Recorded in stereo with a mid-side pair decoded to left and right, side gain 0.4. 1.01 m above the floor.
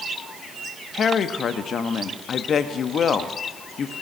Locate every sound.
0.9 s a woman speaking: 60° left, 1.2 m